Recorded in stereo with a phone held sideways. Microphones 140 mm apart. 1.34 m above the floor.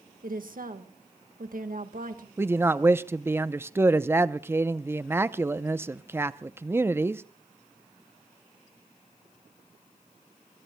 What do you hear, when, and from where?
0.2 s a woman speaking: 80° right, 1.5 m
2.4 s a man speaking: 15° right (ahead or behind), 0.6 m